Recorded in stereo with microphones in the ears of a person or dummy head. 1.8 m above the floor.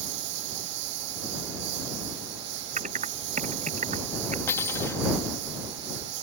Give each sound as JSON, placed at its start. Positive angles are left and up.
{"t": 0.0, "sound": "a lawn mower", "side_deg": -65}
{"t": 2.8, "sound": "typing on a keyboard", "side_deg": -40}
{"t": 4.5, "sound": "cutlery clinking", "side_deg": 15}